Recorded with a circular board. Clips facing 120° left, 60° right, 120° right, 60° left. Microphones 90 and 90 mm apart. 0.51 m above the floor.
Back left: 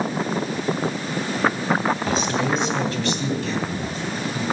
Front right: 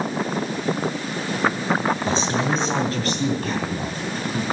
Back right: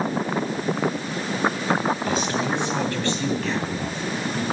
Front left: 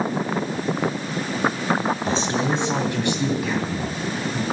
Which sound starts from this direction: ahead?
A man speaking, at 2.1 s.